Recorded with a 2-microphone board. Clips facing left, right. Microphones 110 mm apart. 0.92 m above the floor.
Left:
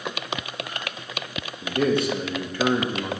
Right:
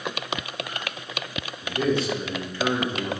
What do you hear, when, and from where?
1.6 s a man speaking: 60° left (ahead or behind), 1.8 m